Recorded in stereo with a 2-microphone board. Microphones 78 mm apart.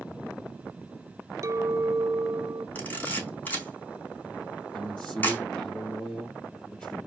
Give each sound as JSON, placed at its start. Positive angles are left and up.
{"t": 1.4, "sound": "a clink", "side_deg": -40, "distance_m": 0.8}
{"t": 2.8, "sound": "a camera shutter", "side_deg": 20, "distance_m": 4.0}
{"t": 4.7, "sound": "a man speaking", "side_deg": 15, "distance_m": 3.5}